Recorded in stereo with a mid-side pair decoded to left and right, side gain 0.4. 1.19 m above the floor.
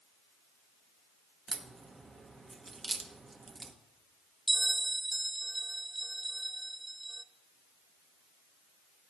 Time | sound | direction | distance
1.5 | a crack | 35° right | 1.2 m
4.5 | a bell | 15° right | 0.5 m